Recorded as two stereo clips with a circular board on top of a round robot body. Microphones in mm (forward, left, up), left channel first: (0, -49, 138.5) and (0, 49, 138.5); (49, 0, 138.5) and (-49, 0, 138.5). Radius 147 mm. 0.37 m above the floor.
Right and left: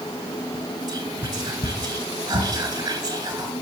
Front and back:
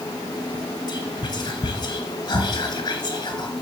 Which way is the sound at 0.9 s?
50° left.